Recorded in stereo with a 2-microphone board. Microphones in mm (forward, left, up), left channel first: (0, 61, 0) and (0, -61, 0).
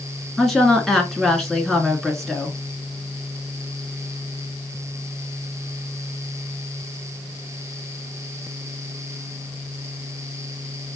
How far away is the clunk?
No clunk in this recording.